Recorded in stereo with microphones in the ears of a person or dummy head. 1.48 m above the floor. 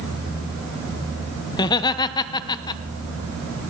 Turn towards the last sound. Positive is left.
turn(degrees=20)  # may be behind; listen again after turning